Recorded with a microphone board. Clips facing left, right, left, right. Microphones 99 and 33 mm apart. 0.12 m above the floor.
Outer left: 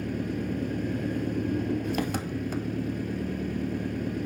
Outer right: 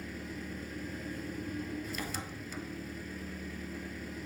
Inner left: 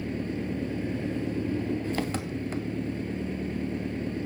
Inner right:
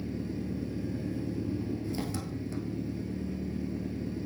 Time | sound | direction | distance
0.0 | an engine running | 60° left (ahead or behind) | 0.8 m